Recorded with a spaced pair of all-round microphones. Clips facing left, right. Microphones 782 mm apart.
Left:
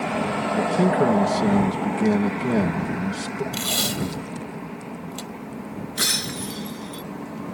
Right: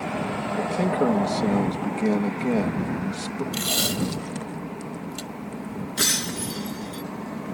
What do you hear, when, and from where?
0.5 s a man speaking: 45° left (ahead or behind)
3.5 s tape being pulled: centre (ahead or behind)
6.0 s breaking glass: 55° right (ahead or behind)